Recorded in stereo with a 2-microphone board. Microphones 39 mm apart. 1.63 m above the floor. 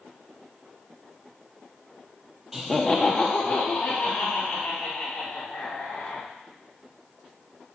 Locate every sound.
2.5 s laughter: 10° right (ahead or behind), 0.6 m; by 6.2 s 75° left (ahead or behind), 3 m